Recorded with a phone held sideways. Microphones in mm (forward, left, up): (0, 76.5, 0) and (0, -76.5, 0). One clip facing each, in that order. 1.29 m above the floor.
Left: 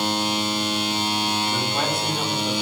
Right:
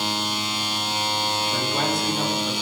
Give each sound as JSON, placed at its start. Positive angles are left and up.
{"t": 1.5, "sound": "a man speaking", "side_deg": -5, "distance_m": 3.0}